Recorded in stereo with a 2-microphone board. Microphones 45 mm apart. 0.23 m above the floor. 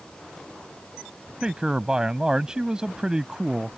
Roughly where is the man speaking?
Centre.